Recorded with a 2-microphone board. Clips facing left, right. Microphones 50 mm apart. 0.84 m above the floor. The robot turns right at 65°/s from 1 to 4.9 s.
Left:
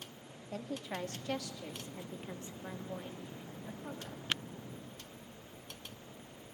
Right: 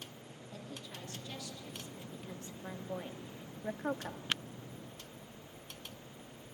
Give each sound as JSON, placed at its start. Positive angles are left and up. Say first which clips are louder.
{"t": 0.5, "sound": "a woman speaking", "louder": "left 8 dB", "azimuth_deg": 65, "distance_m": 1.5}